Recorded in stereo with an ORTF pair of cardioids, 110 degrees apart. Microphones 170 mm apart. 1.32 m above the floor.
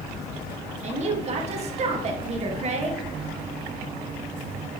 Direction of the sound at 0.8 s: 40° right.